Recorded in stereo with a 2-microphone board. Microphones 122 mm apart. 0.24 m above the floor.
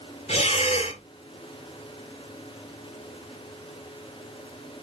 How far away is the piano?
No piano in this recording.